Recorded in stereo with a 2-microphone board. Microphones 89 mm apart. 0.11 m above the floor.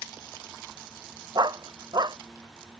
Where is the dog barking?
55° right (ahead or behind).